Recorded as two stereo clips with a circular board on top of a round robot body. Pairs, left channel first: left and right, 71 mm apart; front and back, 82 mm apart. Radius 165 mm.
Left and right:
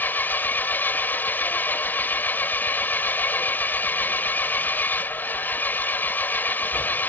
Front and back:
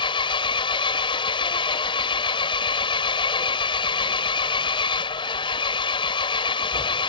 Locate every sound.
0.0 s an engine running: 25° left